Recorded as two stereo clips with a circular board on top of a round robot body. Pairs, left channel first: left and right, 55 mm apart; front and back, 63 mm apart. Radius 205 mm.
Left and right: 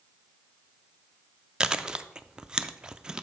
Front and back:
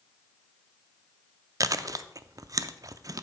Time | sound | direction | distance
1.6 | chewing | 165° right | 0.5 m